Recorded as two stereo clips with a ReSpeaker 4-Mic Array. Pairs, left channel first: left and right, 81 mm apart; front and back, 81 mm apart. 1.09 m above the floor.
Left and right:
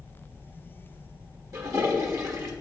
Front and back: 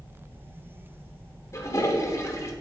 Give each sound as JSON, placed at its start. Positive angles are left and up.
{"t": 1.5, "sound": "a toilet flushing", "azimuth_deg": -50, "distance_m": 1.1}